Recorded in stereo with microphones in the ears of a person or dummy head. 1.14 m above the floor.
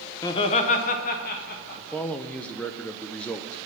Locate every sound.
0.2 s laughter: 15° left (ahead or behind), 0.6 m; by 2.0 s 45° left (ahead or behind), 1.6 m
1.8 s a man speaking: 5° left (ahead or behind), 0.6 m